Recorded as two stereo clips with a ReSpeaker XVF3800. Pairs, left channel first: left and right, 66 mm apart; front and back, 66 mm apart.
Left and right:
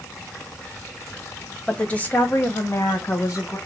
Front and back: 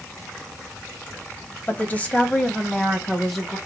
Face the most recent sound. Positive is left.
turn(degrees=90)